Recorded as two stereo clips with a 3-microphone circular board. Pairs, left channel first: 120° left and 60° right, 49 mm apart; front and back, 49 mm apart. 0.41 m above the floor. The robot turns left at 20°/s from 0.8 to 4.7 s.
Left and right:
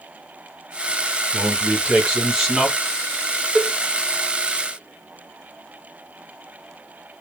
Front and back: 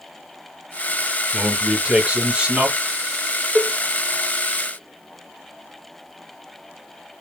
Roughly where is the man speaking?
Behind right.